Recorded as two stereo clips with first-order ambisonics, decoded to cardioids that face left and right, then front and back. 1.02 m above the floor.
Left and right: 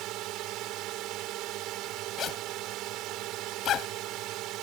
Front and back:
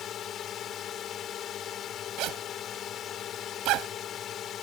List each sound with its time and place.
0.0 s a drone: 55° right
2.2 s a zipper: 145° left